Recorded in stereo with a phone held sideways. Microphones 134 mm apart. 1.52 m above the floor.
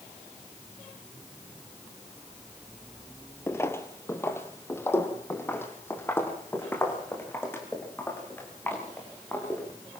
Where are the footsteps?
20° left (ahead or behind), 1.8 m; by 10.0 s 15° left (ahead or behind), 9 m.